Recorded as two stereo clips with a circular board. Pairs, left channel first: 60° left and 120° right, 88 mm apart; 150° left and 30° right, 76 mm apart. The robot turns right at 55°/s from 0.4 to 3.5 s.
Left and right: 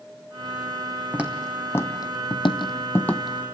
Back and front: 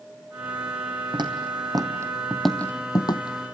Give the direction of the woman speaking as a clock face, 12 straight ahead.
I don't hear a woman speaking.